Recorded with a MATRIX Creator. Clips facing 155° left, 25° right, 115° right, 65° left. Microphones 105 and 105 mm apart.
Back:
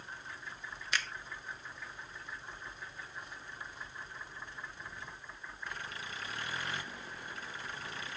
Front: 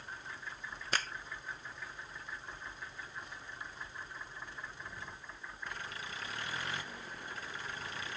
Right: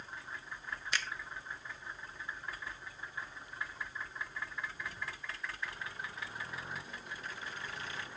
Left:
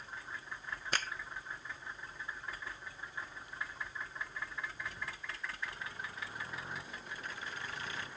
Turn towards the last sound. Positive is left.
turn(degrees=25)